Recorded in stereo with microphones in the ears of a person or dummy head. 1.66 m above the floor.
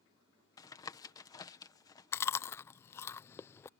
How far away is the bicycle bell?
No bicycle bell in this recording.